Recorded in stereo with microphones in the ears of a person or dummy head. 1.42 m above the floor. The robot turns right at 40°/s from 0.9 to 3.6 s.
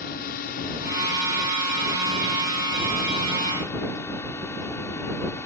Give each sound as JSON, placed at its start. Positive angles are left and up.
{"t": 0.0, "sound": "a drone", "azimuth_deg": 60}